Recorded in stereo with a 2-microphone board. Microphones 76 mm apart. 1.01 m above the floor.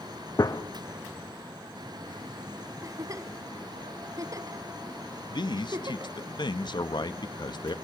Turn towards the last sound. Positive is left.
turn(degrees=65)  # may be behind; listen again after turning